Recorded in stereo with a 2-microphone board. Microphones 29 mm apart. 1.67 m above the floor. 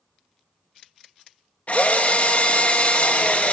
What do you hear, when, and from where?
1.7 s a drill: 55° left (ahead or behind), 1.7 m